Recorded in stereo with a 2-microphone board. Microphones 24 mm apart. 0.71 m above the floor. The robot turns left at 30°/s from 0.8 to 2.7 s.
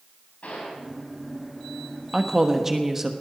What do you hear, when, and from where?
0.4 s a gunshot: 80° left, 5 m
2.1 s a woman speaking: 15° right (ahead or behind), 1.1 m